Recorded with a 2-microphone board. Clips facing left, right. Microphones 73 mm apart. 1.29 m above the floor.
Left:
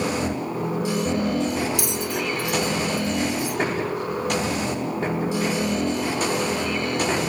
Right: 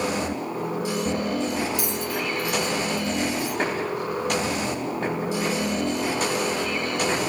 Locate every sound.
1.8 s a bell: 70° left (ahead or behind), 0.7 m